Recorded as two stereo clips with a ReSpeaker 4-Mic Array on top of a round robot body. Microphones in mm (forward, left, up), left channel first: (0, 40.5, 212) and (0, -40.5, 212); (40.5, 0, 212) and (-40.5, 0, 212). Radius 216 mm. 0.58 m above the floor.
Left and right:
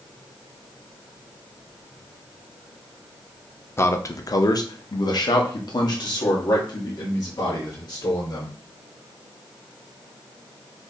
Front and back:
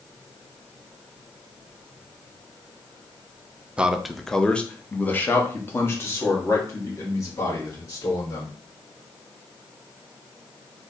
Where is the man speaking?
110° left, 0.8 m; by 8.5 s 50° left, 2.5 m.